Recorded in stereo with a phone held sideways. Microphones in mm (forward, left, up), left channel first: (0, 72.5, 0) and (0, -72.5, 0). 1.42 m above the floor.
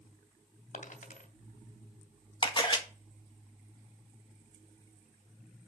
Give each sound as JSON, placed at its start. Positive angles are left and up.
{"t": 0.7, "sound": "a dropped coin", "side_deg": 65, "distance_m": 2.5}
{"t": 2.4, "sound": "a camera shutter", "side_deg": 35, "distance_m": 1.6}